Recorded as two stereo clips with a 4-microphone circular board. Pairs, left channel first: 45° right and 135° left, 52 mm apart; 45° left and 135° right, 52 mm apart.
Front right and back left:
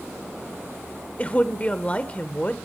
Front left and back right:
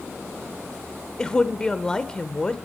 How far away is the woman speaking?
About 0.9 m.